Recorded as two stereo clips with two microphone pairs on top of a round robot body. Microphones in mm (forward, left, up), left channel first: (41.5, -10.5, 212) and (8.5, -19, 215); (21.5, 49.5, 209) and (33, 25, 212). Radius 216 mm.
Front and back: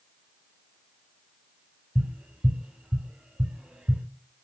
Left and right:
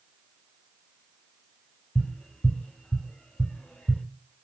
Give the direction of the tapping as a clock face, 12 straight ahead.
7 o'clock.